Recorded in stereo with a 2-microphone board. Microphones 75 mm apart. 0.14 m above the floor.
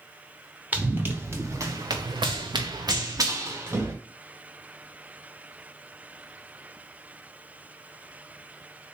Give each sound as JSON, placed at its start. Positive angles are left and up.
{"t": 0.7, "sound": "running footsteps", "side_deg": -20, "distance_m": 1.3}